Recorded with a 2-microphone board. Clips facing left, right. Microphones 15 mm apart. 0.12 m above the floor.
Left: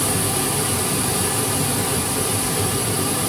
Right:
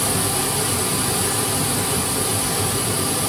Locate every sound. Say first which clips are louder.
0.0 s running water: even; 10° right (ahead or behind), 1.1 m